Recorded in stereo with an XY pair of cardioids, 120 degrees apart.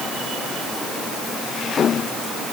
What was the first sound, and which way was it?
Only background noise.